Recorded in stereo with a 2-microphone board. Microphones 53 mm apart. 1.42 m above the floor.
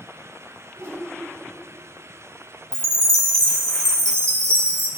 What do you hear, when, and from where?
0.8 s a whoosh: 60° right (ahead or behind), 2 m
2.7 s a chime: 55° right (ahead or behind), 1.3 m